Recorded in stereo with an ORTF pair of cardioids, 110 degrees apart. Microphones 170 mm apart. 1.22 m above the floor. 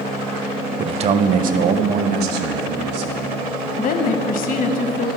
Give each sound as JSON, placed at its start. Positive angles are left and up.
{"t": 0.8, "sound": "a man speaking", "azimuth_deg": -30, "distance_m": 0.6}
{"t": 3.8, "sound": "a woman speaking", "azimuth_deg": 60, "distance_m": 1.0}